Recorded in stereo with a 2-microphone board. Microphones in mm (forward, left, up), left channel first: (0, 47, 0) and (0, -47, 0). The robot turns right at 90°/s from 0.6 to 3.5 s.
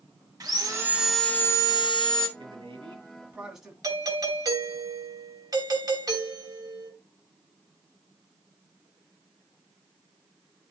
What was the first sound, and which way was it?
Sawing, 45° right.